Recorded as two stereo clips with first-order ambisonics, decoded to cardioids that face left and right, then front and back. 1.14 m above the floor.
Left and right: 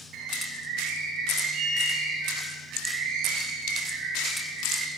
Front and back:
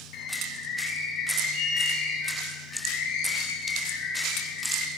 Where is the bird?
30° right, 9.5 m.